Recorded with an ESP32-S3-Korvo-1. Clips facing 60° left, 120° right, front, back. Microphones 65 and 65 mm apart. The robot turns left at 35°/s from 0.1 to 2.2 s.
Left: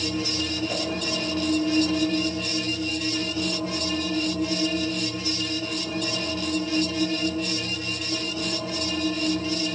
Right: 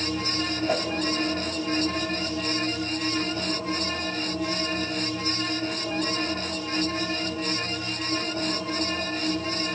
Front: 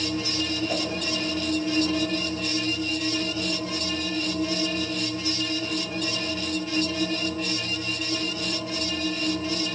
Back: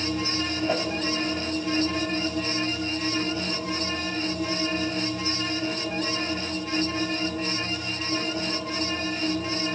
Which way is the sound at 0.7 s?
145° right.